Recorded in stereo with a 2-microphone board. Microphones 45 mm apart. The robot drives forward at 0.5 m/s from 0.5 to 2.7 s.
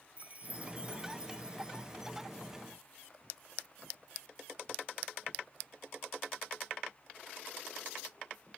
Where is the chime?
35° right (ahead or behind); by 2.0 s 20° right (ahead or behind).